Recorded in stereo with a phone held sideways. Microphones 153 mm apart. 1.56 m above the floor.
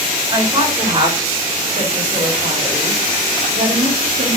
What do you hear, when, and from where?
0.3 s a woman speaking: 30° right (ahead or behind), 4 m; by 4.4 s 60° right (ahead or behind), 4 m